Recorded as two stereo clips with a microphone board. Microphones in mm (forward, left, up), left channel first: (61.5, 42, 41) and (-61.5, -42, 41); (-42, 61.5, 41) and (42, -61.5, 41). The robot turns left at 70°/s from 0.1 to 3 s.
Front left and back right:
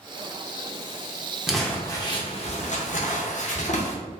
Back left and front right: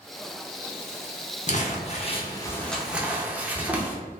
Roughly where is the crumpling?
Behind left.